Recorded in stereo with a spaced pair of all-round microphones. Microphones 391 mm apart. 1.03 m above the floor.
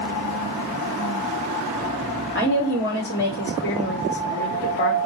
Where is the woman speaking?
35° left (ahead or behind), 2.5 m.